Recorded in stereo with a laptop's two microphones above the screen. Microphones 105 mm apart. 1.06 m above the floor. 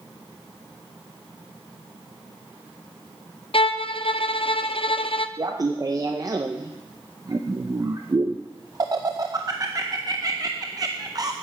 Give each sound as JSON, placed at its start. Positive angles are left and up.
{"t": 3.5, "sound": "a violin", "side_deg": 60, "distance_m": 0.5}
{"t": 5.4, "sound": "laughter", "side_deg": -35, "distance_m": 0.6}